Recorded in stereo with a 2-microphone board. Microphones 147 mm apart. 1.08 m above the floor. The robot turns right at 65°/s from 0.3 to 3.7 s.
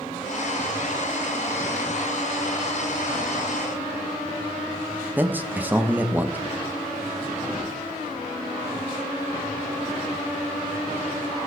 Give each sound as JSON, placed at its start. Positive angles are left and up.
{"t": 5.2, "sound": "a man speaking", "side_deg": -10, "distance_m": 0.6}